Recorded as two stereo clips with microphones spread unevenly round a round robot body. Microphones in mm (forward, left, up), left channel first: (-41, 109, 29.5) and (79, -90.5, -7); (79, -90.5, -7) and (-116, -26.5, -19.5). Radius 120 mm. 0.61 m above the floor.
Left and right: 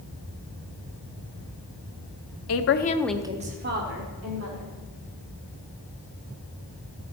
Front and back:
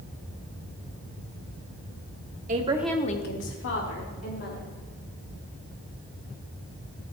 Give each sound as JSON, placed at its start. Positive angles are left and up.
{"t": 2.5, "sound": "a woman speaking", "azimuth_deg": 115, "distance_m": 1.0}